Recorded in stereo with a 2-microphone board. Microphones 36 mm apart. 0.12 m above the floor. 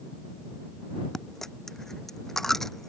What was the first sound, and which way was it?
A dropped coin, 10° left (ahead or behind).